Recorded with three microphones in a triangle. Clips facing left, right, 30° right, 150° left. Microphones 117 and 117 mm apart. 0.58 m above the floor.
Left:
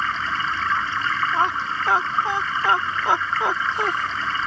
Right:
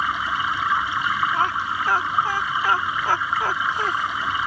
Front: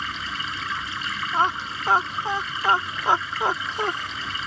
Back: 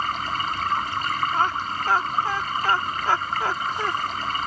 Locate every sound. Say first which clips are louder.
0.0 s running water: right 1 dB, back 6 dB; 165° right
1.3 s laughter: left 1 dB, even; 30° left